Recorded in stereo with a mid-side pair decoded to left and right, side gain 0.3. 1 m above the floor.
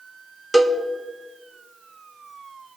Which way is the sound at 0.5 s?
20° right.